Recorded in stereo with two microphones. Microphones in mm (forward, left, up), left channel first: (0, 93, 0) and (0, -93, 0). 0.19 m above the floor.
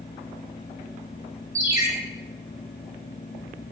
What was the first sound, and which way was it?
A ringtone, 15° right (ahead or behind).